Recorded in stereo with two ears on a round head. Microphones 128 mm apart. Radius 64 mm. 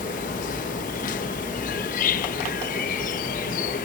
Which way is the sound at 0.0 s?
60° left (ahead or behind).